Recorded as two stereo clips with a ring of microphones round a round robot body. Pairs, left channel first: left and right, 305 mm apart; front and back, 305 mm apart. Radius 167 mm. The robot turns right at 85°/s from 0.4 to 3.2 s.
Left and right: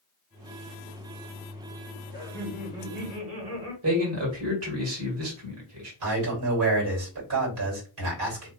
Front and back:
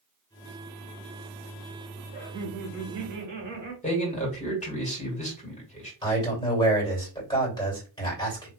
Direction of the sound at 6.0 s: 75° right.